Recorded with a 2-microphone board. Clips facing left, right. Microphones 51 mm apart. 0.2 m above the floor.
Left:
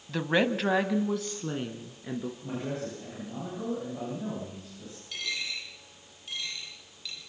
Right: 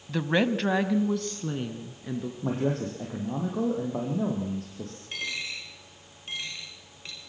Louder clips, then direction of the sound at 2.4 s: Right 6 dB; 65° right (ahead or behind).